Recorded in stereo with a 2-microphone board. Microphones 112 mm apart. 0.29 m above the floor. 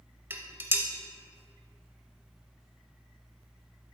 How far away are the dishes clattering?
About 0.7 m.